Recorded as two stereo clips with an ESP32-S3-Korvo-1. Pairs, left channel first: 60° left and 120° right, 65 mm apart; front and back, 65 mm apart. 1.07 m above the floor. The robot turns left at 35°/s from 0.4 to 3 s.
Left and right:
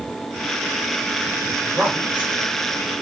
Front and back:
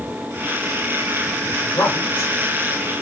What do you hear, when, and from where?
1.6 s a woman speaking: 30° right, 4 m; by 2.3 s 60° right, 4 m